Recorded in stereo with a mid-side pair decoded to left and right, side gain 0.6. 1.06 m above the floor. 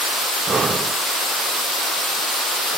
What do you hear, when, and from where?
0.5 s breathing: 30° right, 0.8 m